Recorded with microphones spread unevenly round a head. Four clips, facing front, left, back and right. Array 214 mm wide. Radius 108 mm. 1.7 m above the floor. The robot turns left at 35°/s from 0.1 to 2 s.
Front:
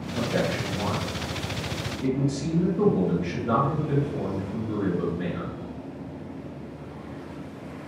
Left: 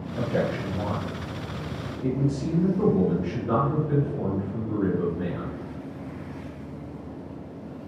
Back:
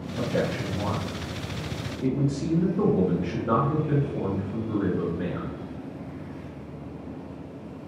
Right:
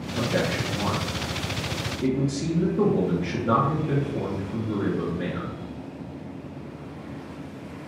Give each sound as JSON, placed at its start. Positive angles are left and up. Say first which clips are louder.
{"t": 0.2, "sound": "a man speaking", "louder": "even, even", "azimuth_deg": -60, "distance_m": 1.2}